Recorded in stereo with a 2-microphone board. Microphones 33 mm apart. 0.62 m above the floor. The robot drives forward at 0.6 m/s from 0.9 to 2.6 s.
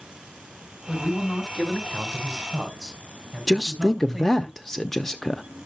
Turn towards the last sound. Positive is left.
turn(degrees=10)  # may be behind; listen again after turning